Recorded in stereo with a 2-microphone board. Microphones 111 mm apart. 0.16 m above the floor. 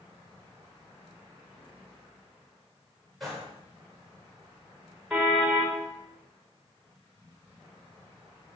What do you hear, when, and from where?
3.2 s a gunshot: centre (ahead or behind), 9.5 m
5.1 s a car horn: centre (ahead or behind), 7.5 m